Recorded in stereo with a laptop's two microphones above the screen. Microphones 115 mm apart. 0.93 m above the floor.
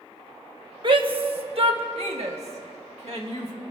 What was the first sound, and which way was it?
A shout, 45° right (ahead or behind).